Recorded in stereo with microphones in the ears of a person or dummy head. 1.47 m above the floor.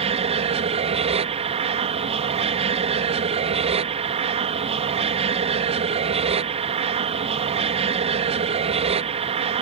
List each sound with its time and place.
0.0 s an aircraft: 30° right (ahead or behind)